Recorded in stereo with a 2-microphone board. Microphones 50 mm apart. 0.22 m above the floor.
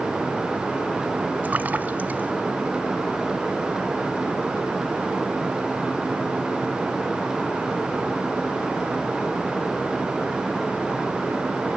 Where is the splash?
35° right (ahead or behind), 1.0 m.